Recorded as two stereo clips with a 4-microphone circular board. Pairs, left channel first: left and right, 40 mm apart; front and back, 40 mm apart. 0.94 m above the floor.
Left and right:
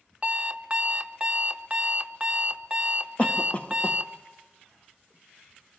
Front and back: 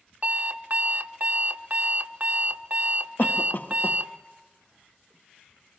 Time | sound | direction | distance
0.2 | an alarm clock | 150° right | 0.7 m
3.2 | a cough | 35° left | 1.2 m